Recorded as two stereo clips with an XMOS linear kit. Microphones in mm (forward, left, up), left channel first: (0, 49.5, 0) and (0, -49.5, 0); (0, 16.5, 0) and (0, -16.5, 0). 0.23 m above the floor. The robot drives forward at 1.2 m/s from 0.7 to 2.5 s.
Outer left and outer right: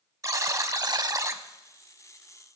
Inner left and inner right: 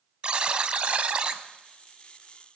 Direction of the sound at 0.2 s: 35° right (ahead or behind).